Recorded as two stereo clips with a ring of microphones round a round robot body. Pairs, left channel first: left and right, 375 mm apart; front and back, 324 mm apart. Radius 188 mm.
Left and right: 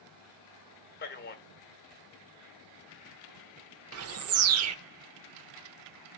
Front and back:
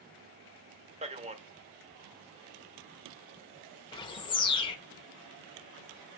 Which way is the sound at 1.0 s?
125° left.